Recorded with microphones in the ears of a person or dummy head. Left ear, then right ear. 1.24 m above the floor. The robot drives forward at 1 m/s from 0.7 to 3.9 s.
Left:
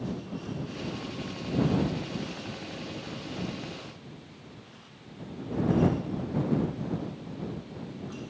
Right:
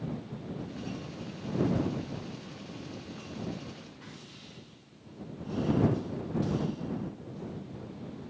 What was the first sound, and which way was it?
Only background noise.